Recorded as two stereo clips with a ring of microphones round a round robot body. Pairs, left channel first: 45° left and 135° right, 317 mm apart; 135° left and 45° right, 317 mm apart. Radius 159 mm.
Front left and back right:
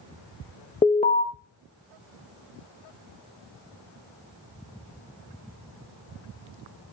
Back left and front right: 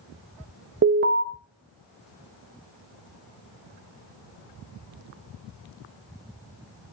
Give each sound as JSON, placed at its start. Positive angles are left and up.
{"t": 0.8, "sound": "an alarm", "azimuth_deg": -15, "distance_m": 0.6}